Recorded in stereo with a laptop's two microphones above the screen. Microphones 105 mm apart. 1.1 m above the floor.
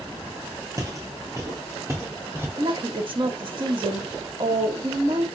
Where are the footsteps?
30° right (ahead or behind), 1.2 m; by 2.5 s 25° right (ahead or behind), 1.7 m.